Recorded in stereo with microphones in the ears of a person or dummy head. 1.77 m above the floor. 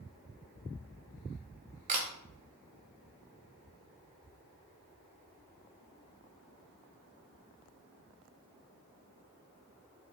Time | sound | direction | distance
1.9 | a camera shutter | 45° right (ahead or behind) | 1.0 m